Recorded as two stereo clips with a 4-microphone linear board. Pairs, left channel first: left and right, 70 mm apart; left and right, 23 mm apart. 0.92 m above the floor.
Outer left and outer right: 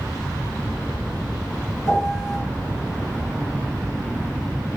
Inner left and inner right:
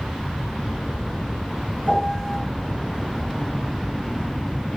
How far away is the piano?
About 1.5 m.